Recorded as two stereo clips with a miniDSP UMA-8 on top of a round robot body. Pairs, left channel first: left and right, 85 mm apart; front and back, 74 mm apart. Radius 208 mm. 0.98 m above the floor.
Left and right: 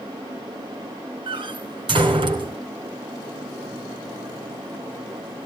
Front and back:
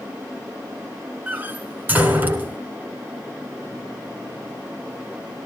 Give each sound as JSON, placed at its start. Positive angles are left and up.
{"t": 1.3, "sound": "a door slam", "azimuth_deg": -115, "distance_m": 4.0}